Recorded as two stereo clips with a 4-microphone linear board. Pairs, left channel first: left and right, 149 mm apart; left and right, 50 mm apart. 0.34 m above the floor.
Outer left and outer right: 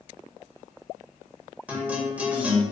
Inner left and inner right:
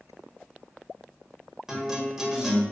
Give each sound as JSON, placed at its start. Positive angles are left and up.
{"t": 1.7, "sound": "a guitar", "side_deg": -10, "distance_m": 1.5}